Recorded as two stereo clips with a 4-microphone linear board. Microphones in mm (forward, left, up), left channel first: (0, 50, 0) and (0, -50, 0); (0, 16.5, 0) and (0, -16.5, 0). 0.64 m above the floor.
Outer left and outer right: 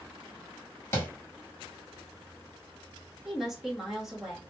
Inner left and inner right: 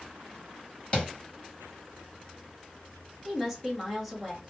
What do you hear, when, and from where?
0.9 s tapping: 25° left (ahead or behind), 1.6 m
3.2 s a woman speaking: 5° right (ahead or behind), 1.2 m